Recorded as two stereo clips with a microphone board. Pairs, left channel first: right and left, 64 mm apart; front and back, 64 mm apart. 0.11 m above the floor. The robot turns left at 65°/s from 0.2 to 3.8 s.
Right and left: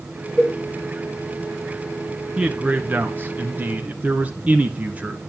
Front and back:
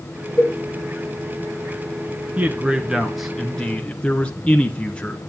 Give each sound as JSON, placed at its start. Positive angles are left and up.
{"t": 0.4, "sound": "a cowbell", "azimuth_deg": -10, "distance_m": 0.6}
{"t": 2.4, "sound": "a man speaking", "azimuth_deg": 150, "distance_m": 1.2}